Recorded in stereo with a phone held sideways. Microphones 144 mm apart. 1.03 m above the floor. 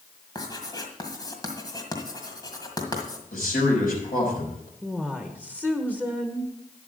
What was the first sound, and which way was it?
Writing, 30° left (ahead or behind).